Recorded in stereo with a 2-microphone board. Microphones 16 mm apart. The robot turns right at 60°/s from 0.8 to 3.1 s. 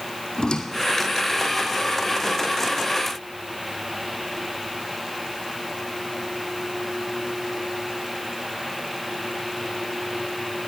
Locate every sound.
0.4 s a squeak: 55° left (ahead or behind), 1.1 m; by 1.7 s 45° left (ahead or behind), 1.1 m